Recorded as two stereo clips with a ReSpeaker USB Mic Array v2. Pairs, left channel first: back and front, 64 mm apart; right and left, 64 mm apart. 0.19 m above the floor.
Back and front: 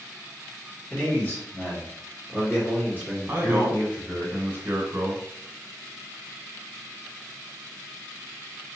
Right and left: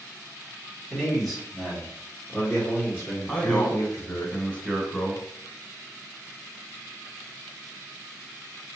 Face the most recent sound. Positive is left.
turn(degrees=-30)